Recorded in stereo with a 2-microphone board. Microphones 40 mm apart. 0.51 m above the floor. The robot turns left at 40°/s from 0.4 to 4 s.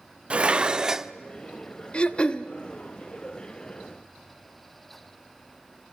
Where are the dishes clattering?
30° right (ahead or behind), 0.6 m; by 1.1 s 10° right (ahead or behind), 0.6 m.